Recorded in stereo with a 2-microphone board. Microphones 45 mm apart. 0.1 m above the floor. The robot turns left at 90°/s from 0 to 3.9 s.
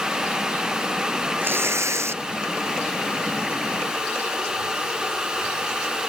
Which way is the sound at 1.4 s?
45° right.